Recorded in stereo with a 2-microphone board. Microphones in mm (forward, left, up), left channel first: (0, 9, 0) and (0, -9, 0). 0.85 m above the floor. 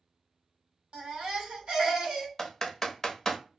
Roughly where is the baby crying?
Right.